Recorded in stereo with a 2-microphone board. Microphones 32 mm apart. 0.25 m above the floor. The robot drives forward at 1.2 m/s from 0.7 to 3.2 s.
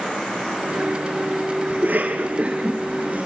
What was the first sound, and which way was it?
A cough, 55° right (ahead or behind).